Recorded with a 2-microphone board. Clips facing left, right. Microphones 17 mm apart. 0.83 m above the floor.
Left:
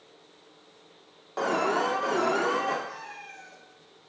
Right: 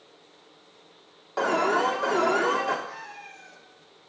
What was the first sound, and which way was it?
An alarm, 10° right (ahead or behind).